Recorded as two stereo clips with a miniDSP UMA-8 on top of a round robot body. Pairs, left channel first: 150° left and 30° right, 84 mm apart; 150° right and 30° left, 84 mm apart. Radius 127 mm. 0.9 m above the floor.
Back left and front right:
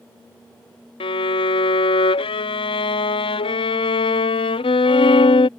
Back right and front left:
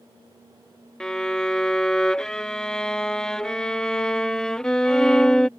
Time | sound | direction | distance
1.0 | a violin | 125° left | ?